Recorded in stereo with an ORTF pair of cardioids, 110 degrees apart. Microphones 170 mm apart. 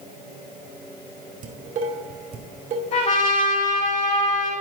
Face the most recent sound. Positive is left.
turn(degrees=45)